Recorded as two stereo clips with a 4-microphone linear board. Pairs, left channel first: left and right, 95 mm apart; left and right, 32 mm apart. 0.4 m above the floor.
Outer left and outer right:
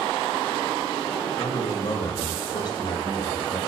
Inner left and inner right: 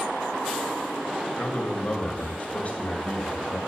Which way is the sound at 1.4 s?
50° left (ahead or behind).